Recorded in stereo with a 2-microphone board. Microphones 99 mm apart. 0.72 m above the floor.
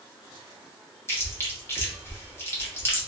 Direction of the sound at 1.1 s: 25° left (ahead or behind).